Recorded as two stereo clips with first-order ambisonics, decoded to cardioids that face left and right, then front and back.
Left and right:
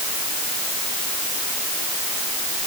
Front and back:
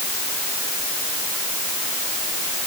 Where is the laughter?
I don't hear laughter.